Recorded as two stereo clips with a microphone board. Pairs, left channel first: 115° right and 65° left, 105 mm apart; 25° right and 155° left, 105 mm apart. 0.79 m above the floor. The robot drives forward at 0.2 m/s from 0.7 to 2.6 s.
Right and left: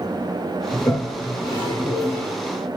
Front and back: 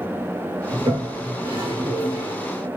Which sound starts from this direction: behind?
A toilet flushing, at 0.7 s.